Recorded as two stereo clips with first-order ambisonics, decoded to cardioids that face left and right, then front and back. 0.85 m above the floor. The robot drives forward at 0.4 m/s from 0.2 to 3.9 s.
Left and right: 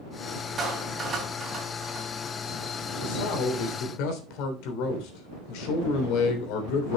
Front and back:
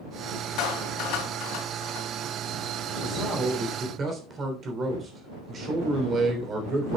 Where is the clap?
20° right, 4 m; by 2.1 s 25° right, 3.5 m.